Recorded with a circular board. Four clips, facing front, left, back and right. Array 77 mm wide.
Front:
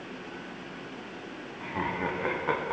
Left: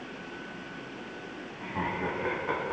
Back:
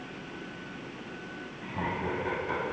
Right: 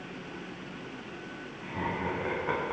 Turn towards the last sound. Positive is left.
turn(degrees=-25)